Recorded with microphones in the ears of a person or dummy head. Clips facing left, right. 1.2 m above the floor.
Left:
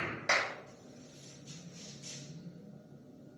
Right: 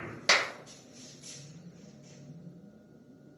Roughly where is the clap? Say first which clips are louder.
Right 4 dB; right.